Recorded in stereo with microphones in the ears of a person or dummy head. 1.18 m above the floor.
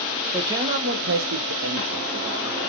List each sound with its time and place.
0.3 s a man speaking: 10° right (ahead or behind), 1.0 m; by 2.7 s 55° right (ahead or behind), 1.7 m